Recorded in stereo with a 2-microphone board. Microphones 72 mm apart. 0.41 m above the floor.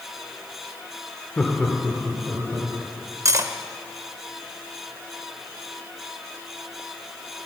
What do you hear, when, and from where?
1.4 s laughter: 20° left (ahead or behind), 1.2 m; by 2.7 s 30° right (ahead or behind), 2.5 m
3.2 s cutlery clinking: 45° right (ahead or behind), 0.6 m